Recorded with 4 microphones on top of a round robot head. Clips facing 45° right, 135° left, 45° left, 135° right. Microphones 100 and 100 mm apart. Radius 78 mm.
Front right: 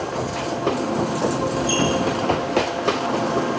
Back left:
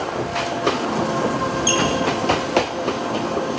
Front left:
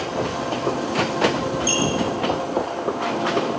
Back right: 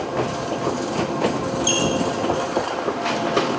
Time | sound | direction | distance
1.7 | a squeak | 150° left | 5 m